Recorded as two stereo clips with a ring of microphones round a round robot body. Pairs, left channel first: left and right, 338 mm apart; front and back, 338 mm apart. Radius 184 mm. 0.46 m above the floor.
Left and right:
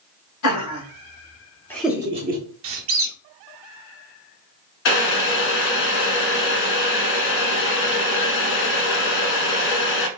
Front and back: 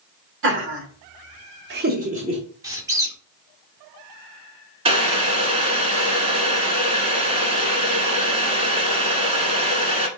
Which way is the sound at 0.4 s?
130° left.